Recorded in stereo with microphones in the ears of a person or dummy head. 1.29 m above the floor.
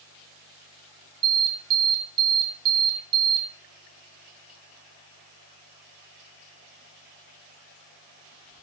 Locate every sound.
1.2 s an alarm: 25° right (ahead or behind), 2.5 m